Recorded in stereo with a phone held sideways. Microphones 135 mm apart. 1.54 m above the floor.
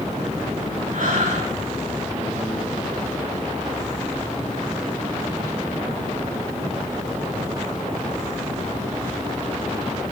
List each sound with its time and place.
0.9 s breathing: 70° right (ahead or behind), 4.5 m